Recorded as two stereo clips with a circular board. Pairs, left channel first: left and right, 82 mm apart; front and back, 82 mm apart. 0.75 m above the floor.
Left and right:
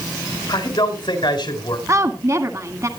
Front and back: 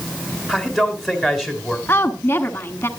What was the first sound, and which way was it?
A man speaking, 95° left.